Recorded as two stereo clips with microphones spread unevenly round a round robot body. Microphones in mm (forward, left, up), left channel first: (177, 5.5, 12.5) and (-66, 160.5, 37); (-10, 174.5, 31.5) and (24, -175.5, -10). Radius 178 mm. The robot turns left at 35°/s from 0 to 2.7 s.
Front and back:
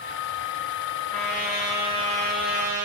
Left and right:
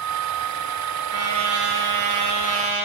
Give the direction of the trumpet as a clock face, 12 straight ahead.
4 o'clock.